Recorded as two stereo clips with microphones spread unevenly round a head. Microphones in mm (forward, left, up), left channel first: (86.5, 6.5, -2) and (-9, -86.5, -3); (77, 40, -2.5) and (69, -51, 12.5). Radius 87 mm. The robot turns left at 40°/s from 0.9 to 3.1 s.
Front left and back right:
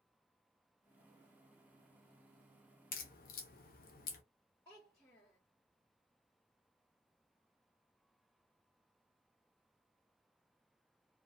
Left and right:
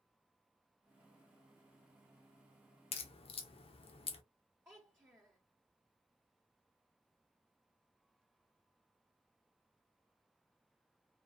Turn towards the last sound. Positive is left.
turn(degrees=-30)